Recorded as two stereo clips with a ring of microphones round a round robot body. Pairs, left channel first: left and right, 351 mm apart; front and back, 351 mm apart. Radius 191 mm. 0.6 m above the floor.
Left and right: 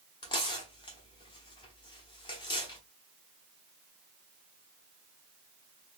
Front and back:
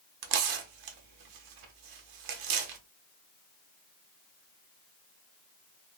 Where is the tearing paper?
165° left, 0.7 m.